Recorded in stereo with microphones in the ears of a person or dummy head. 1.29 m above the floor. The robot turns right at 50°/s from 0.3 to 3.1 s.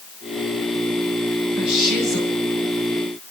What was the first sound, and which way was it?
A woman speaking, 75° left.